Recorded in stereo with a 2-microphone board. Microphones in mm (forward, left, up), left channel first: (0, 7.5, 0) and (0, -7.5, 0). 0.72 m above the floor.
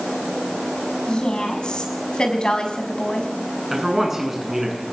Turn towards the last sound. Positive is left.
turn(degrees=-20)  # may be behind; listen again after turning